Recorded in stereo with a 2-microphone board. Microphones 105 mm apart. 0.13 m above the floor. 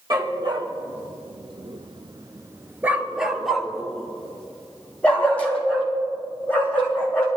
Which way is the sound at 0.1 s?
40° right (ahead or behind).